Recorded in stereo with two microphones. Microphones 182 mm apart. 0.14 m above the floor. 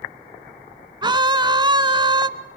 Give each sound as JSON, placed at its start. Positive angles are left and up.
{"t": 1.0, "sound": "a scream", "side_deg": -25, "distance_m": 1.1}